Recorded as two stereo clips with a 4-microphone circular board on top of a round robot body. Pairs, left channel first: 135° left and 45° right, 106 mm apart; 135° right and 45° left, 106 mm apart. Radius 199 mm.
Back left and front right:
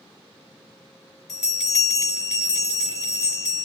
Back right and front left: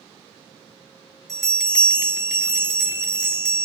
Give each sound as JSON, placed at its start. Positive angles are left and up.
{"t": 1.3, "sound": "a bell", "azimuth_deg": 135, "distance_m": 1.4}